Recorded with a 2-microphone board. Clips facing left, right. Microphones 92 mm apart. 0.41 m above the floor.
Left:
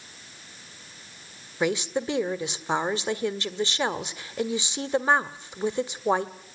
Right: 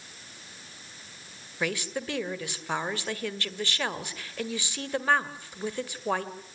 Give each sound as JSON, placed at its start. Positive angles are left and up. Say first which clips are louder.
{"t": 1.6, "sound": "a woman speaking", "louder": "left 6 dB", "side_deg": 20, "distance_m": 1.5}